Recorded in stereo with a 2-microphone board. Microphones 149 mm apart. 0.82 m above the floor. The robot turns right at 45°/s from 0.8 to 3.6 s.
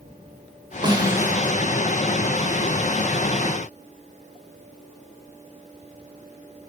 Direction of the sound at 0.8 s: 30° right (ahead or behind).